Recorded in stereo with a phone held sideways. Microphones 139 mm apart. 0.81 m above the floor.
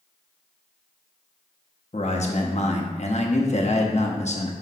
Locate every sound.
1.9 s a man speaking: 60° left (ahead or behind), 1.0 m